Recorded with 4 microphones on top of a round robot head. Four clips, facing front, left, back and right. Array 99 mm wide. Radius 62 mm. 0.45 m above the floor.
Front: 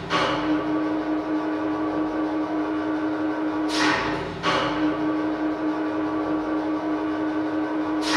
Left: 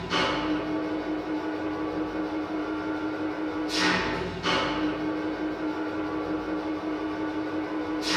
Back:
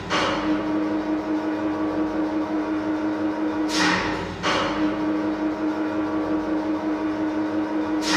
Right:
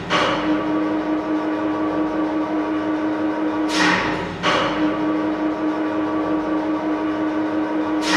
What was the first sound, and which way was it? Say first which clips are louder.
An engine running: right 8 dB, even; 95° right.